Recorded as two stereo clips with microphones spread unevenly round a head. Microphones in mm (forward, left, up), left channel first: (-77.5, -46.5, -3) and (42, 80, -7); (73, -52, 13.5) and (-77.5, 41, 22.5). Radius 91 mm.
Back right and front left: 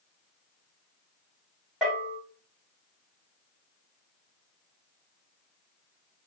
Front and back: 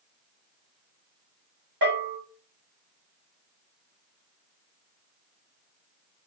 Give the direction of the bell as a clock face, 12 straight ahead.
7 o'clock.